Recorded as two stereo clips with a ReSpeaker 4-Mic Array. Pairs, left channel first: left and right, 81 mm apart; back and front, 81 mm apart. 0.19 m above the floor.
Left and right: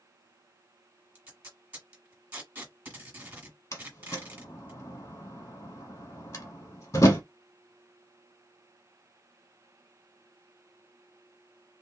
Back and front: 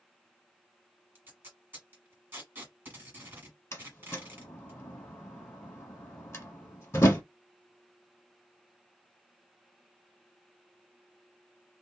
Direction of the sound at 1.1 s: 40° right.